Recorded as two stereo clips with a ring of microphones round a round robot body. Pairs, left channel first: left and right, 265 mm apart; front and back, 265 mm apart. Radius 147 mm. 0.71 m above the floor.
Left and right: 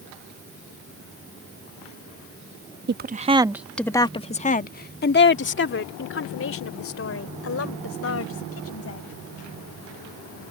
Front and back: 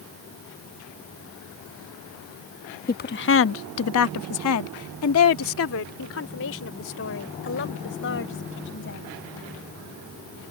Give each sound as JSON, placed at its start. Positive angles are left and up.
{"t": 2.9, "sound": "a woman speaking", "azimuth_deg": -50}